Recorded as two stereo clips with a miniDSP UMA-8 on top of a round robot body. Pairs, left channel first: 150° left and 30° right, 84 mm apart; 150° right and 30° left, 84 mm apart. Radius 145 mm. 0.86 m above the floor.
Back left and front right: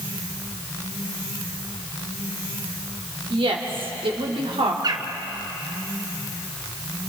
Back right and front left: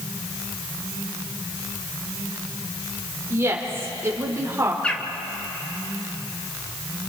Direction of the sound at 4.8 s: 70° right.